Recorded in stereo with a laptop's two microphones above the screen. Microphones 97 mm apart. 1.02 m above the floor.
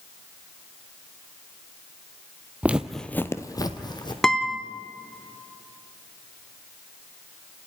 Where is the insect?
I don't hear an insect.